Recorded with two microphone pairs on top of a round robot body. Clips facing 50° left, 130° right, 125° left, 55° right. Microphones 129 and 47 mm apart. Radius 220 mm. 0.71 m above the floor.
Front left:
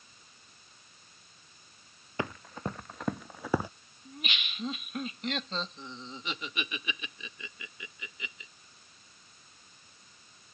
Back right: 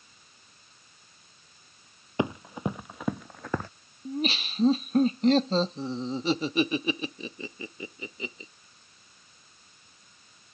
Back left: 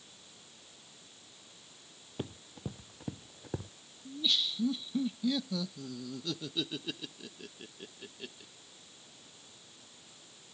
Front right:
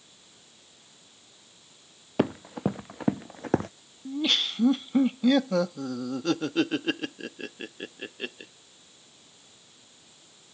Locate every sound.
2.2 s running footsteps: 60° right; by 3.7 s 30° right
4.0 s laughter: 80° right